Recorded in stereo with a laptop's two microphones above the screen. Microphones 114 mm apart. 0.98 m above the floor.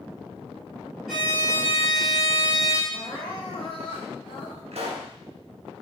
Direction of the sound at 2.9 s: 55° left (ahead or behind).